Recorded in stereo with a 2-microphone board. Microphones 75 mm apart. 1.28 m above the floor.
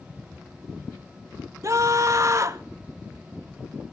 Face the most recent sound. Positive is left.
turn(degrees=-45)  # may be behind; listen again after turning